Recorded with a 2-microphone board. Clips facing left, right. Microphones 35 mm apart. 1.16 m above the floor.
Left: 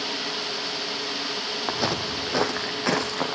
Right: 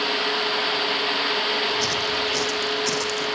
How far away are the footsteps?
About 2.5 m.